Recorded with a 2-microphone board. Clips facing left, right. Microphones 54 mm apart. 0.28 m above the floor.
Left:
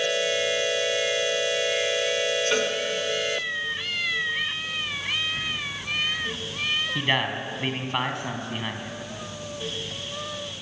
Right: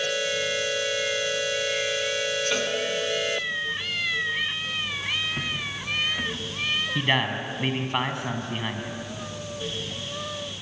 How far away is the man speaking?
About 2.5 m.